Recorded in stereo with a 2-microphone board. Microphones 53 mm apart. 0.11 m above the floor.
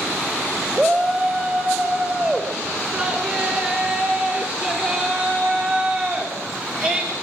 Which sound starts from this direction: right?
A shout, at 0.8 s.